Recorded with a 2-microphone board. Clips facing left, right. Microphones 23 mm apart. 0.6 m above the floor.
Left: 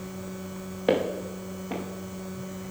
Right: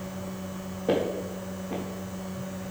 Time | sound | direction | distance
0.9 | footsteps | 75° left (ahead or behind) | 4.5 m